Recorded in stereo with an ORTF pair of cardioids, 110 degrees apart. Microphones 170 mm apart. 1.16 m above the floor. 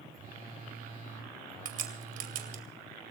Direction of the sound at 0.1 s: 55° right.